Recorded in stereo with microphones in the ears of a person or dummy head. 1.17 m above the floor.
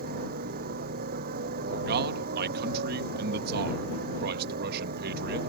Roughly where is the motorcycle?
Right.